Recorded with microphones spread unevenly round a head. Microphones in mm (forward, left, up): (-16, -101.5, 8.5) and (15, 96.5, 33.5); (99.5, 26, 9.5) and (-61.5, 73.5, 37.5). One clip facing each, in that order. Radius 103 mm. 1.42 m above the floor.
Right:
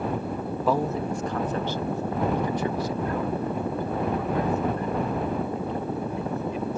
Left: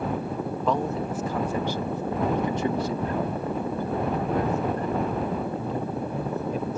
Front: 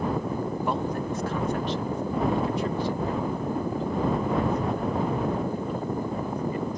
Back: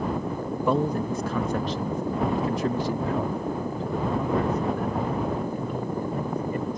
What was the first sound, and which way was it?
A man speaking, 175° left.